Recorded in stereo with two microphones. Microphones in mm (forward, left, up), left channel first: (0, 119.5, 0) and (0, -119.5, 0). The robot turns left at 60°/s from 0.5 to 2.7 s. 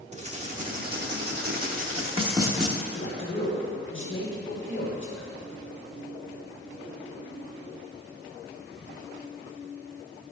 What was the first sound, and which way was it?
Writing, 45° right.